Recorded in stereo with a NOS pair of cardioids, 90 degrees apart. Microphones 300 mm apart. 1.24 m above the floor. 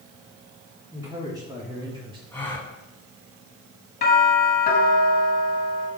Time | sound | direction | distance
0.9 | a man speaking | 10° right | 3.5 m
2.3 | a gasp | 5° left | 3.5 m
4.0 | a doorbell | 30° left | 3 m